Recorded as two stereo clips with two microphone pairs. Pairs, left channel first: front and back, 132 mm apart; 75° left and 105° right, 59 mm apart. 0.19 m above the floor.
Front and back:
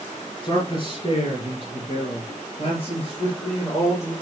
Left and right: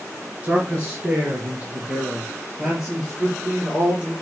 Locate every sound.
0.4 s a man speaking: 45° right, 2.5 m; by 4.1 s 35° right, 4 m